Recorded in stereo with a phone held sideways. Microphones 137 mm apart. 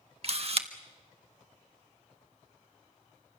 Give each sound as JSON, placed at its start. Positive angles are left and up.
{"t": 0.2, "sound": "a camera shutter", "side_deg": -45, "distance_m": 1.4}